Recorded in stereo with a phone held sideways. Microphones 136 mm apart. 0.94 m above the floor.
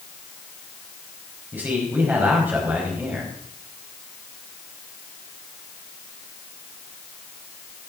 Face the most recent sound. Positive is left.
turn(degrees=-15)  # may be behind; listen again after turning